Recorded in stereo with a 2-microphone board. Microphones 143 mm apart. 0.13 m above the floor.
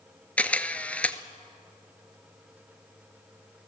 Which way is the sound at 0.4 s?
10° left (ahead or behind).